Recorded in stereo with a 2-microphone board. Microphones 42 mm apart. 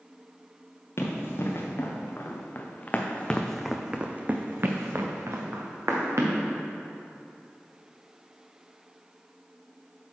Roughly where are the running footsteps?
Left.